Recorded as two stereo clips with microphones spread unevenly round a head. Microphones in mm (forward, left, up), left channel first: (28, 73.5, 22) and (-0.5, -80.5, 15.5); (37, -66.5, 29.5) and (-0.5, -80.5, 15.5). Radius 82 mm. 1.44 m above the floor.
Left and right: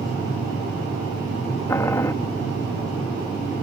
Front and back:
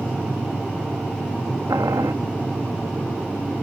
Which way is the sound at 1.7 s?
150° left.